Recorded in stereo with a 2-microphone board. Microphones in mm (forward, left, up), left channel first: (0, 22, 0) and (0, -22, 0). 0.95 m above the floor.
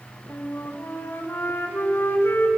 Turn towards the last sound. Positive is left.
turn(degrees=55)  # may be behind; listen again after turning